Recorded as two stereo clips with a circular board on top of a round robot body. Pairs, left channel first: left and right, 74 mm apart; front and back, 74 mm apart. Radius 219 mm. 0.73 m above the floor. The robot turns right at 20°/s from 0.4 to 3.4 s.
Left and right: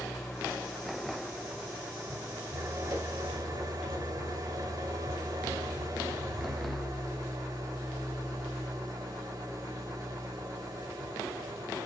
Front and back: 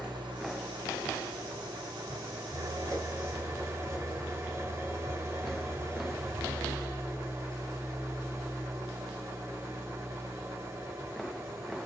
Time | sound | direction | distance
0.0 | an engine running | straight behind | 3 m